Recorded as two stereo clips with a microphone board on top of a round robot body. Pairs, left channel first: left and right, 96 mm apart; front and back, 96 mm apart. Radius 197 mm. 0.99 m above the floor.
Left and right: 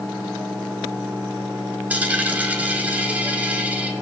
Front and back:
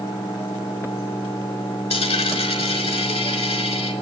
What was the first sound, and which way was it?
A dropped coin, 15° right.